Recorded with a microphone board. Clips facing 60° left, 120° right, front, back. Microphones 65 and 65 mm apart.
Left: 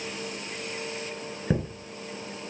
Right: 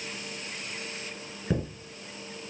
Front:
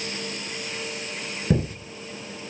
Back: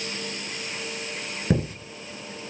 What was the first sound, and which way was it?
A chime, 115° left.